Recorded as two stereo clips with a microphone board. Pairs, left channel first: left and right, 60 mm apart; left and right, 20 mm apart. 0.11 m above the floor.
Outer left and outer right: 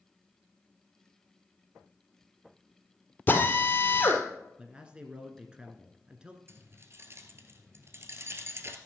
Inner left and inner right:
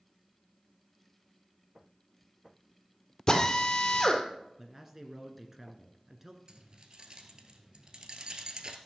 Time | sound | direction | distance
3.3 | a drill | 30° left (ahead or behind) | 1.9 m
4.6 | a man speaking | 15° right (ahead or behind) | 1.3 m
6.5 | keys jangling | 45° right (ahead or behind) | 1.4 m